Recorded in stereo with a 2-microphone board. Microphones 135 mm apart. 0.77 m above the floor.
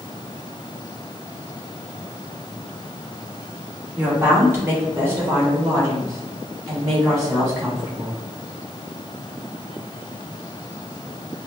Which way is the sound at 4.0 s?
15° right (ahead or behind).